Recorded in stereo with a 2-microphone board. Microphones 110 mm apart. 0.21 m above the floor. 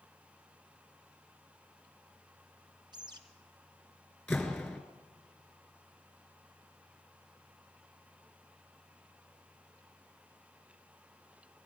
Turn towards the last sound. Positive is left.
turn(degrees=5)  # may be behind; listen again after turning